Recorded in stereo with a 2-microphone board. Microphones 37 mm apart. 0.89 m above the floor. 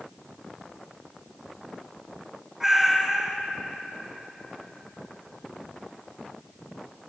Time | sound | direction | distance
2.6 | a cat meowing | 5° right (ahead or behind) | 1.5 m